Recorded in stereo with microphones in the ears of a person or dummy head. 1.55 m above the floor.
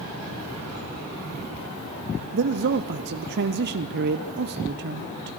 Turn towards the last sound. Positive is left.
turn(degrees=-60)  # may be behind; listen again after turning